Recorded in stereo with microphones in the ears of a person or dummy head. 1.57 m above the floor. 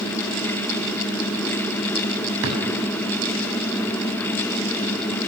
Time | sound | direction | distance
2.4 | a drawer | 65° right (ahead or behind) | 7 m